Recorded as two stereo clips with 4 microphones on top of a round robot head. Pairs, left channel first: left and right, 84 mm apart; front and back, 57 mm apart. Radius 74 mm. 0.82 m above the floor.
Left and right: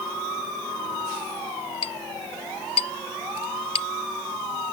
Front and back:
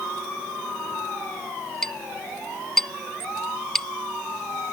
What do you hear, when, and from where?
1.8 s a clink: 80° left